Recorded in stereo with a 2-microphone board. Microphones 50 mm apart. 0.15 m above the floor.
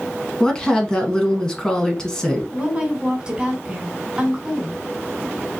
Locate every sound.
0.4 s a woman speaking: 15° left (ahead or behind), 1.2 m
2.5 s a woman speaking: 20° right (ahead or behind), 1.7 m